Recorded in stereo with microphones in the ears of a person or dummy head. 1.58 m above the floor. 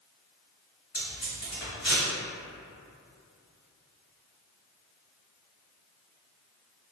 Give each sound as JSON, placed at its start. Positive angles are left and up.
{"t": 0.9, "sound": "tape being pulled", "side_deg": 45, "distance_m": 1.8}